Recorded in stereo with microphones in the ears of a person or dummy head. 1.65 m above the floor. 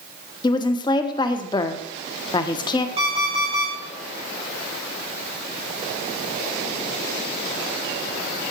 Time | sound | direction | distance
0.4 | a woman speaking | 25° left (ahead or behind) | 1.0 m
3.0 | an alarm clock | 25° right (ahead or behind) | 3 m